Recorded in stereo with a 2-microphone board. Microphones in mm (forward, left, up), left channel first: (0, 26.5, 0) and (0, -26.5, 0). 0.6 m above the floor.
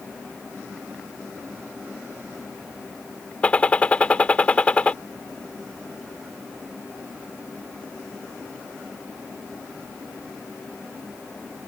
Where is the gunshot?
25° left (ahead or behind).